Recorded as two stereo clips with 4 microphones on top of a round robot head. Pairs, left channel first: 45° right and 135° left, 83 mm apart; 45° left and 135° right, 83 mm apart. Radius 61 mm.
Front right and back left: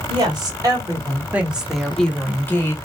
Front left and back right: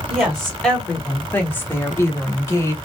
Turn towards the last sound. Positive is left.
turn(degrees=5)